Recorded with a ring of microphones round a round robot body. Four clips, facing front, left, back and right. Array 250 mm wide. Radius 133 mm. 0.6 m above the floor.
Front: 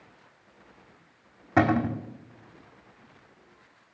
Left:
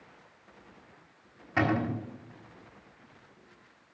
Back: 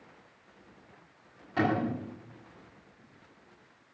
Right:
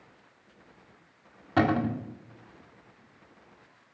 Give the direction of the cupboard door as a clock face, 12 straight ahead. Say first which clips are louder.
Right 3 dB, front 5 dB; 1 o'clock.